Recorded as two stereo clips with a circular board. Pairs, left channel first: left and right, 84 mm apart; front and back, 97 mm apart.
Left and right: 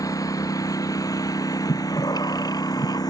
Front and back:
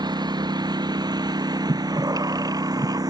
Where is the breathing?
130° left.